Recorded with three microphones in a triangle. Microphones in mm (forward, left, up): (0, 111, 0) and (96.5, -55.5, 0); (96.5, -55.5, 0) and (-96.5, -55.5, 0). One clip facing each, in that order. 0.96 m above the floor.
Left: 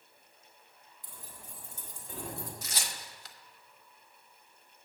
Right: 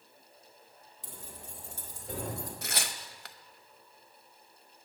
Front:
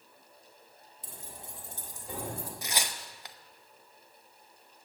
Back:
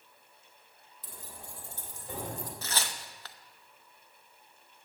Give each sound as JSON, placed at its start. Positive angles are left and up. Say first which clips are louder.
{"t": 1.0, "sound": "keys jangling", "louder": "right 4 dB, even", "azimuth_deg": -60, "distance_m": 1.9}
{"t": 2.6, "sound": "tearing paper", "louder": "right 4 dB, front 1 dB", "azimuth_deg": -75, "distance_m": 0.7}